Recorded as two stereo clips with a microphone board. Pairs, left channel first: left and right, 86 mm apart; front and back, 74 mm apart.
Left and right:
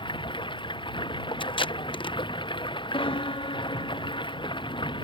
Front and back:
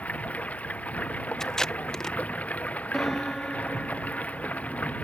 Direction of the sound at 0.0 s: 70° left.